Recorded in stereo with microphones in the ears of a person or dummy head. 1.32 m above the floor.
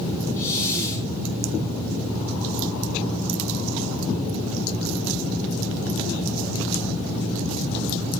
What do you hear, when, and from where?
0.4 s a hiss: 15° left (ahead or behind), 4.5 m